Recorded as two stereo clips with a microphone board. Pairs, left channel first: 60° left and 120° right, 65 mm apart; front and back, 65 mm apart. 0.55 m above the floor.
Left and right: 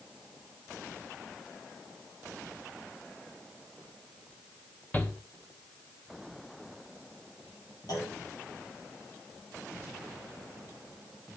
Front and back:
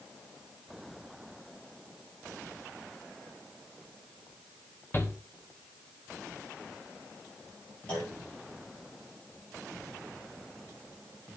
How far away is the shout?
About 1.2 m.